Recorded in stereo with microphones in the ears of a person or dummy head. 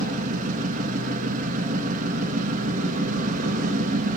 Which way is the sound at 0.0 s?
40° right (ahead or behind).